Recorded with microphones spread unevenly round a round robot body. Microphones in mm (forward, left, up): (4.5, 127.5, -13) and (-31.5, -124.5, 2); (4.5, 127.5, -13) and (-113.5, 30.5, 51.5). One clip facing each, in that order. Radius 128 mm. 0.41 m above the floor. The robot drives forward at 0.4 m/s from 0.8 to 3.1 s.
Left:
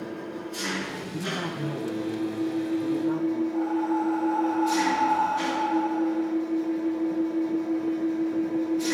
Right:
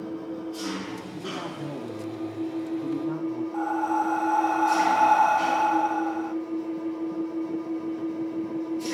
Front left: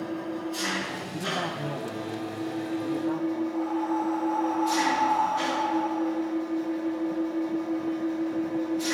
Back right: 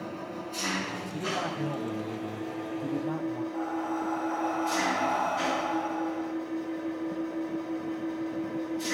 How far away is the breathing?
About 0.9 m.